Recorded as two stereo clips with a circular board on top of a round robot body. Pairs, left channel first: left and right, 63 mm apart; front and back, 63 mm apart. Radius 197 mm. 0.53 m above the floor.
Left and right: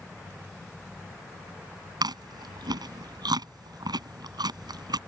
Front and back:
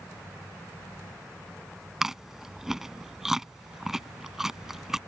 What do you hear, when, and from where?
2.0 s chewing: 95° right